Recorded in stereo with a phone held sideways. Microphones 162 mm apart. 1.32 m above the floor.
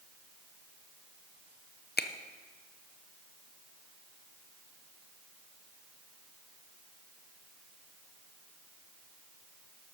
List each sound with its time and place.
2.0 s a finger snap: 80° left, 0.5 m